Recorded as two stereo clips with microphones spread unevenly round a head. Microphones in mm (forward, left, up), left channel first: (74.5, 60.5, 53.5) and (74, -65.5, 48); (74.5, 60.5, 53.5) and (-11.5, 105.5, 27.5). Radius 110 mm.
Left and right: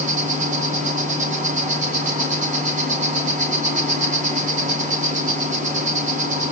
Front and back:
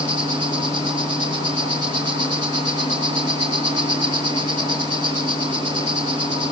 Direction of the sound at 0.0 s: 70° right.